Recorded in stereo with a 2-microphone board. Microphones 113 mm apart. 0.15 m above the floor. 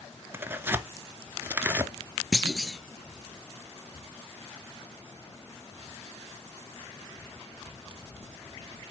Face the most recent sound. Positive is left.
turn(degrees=5)  # may be behind; listen again after turning